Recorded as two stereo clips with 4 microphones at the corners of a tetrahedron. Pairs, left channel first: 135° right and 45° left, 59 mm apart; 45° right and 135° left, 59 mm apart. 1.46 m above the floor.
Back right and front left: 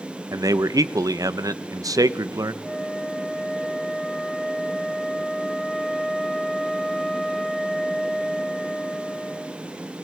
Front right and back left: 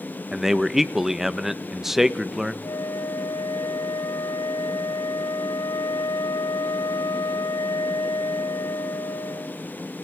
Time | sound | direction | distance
0.3 | a man speaking | 50° left | 1.0 m
2.6 | a flute | 50° right | 0.7 m